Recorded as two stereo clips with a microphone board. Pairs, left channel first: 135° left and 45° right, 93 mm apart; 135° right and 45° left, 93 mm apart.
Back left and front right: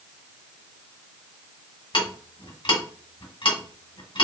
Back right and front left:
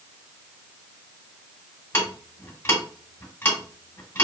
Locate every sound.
1.9 s ticking: 160° left, 1.4 m